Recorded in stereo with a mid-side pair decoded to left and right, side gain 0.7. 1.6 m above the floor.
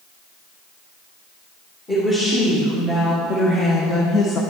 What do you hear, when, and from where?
1.9 s a woman speaking: 25° left, 2.5 m; by 4.4 s 40° left, 0.7 m